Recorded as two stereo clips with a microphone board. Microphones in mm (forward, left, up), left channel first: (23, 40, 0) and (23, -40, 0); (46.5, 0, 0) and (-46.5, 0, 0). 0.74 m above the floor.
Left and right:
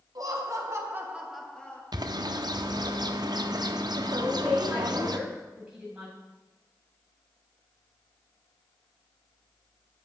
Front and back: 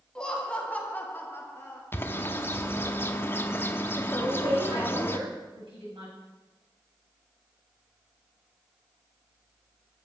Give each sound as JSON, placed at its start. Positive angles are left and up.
{"t": 0.1, "sound": "laughter", "azimuth_deg": -80, "distance_m": 1.7}
{"t": 1.9, "sound": "a bird", "azimuth_deg": -65, "distance_m": 0.6}
{"t": 4.2, "sound": "a woman speaking", "azimuth_deg": -165, "distance_m": 4.5}